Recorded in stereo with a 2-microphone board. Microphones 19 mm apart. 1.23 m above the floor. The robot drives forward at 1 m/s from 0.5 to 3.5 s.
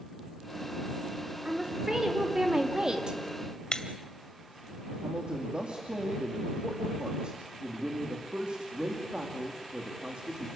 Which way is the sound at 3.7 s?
40° left (ahead or behind).